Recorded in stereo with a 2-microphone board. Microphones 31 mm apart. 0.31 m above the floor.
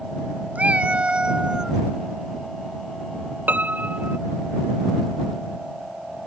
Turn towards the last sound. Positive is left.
turn(degrees=-70)  # may be behind; listen again after turning